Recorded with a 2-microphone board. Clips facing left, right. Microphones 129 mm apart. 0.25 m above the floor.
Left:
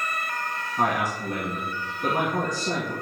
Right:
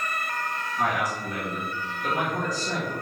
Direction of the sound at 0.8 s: 60° left (ahead or behind).